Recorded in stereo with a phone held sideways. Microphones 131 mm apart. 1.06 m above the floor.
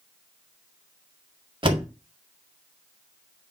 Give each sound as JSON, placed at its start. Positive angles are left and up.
{"t": 1.6, "sound": "a door slam", "side_deg": -40, "distance_m": 1.9}